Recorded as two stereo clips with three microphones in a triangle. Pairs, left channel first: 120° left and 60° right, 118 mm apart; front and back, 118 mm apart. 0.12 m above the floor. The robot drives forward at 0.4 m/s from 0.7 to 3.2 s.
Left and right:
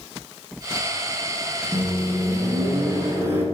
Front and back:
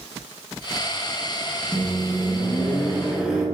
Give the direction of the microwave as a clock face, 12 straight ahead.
2 o'clock.